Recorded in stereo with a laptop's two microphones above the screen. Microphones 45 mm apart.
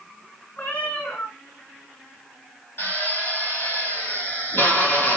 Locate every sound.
0.6 s a cat meowing: 45° left (ahead or behind), 2 m
2.8 s a drill: 60° left (ahead or behind), 3 m